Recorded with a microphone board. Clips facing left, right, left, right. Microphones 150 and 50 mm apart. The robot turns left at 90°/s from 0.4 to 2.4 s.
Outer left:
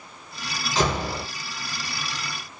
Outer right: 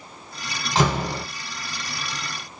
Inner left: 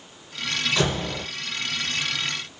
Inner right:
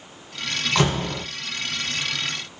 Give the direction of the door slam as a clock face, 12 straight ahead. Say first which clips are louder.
Outer right 2 dB, inner right 6 dB; 3 o'clock.